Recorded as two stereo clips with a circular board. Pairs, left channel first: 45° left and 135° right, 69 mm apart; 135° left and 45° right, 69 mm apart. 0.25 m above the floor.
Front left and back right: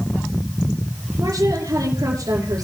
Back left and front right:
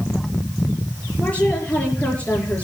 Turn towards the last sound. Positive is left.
turn(degrees=-155)